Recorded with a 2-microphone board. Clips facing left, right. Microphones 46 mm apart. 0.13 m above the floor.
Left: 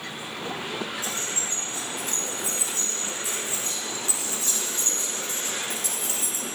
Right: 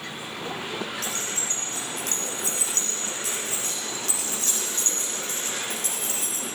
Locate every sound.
1.0 s keys jangling: 80° right, 5 m; by 6.4 s 45° right (ahead or behind), 5.5 m